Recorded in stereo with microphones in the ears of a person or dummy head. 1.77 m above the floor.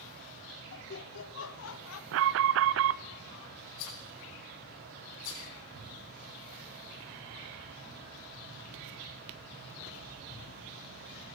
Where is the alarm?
70° right (ahead or behind), 0.8 m.